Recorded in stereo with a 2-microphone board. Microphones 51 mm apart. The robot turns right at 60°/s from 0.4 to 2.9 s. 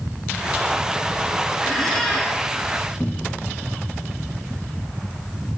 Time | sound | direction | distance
1.6 | a squeak | 10° right | 2.0 m
3.0 | a cupboard door | 25° left (ahead or behind) | 0.5 m